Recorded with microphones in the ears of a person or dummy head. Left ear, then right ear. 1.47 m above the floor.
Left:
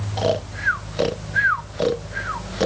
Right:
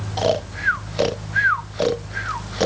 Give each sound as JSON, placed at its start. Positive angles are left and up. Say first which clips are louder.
{"t": 0.2, "sound": "snoring", "louder": "right 1 dB", "side_deg": -10}